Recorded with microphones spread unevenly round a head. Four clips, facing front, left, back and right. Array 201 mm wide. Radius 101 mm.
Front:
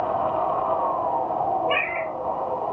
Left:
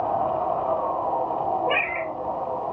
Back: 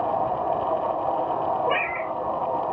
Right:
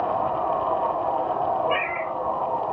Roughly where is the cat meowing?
Behind left.